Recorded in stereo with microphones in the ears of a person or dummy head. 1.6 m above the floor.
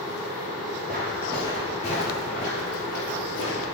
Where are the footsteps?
Centre (ahead or behind), 1.7 m; by 3.6 s 50° left (ahead or behind), 2.5 m.